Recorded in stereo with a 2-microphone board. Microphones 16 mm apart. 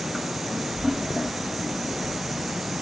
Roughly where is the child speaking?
Left.